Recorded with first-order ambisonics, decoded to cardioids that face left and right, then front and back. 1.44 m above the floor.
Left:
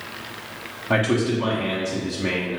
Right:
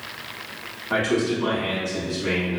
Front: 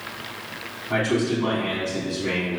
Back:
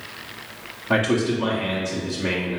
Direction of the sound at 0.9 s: 130° left.